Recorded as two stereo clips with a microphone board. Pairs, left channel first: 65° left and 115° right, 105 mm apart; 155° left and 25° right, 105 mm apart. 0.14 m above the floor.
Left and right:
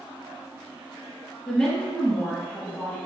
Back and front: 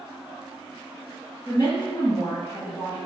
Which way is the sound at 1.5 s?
145° left.